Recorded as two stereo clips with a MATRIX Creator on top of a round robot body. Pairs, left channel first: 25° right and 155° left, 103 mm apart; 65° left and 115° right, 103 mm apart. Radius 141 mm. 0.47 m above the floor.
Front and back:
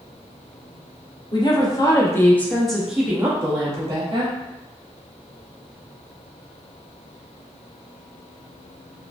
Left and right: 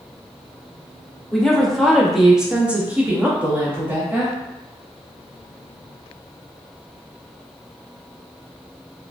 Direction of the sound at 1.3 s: 15° right.